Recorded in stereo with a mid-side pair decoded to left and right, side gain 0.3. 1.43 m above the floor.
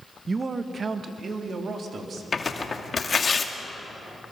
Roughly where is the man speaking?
Ahead right.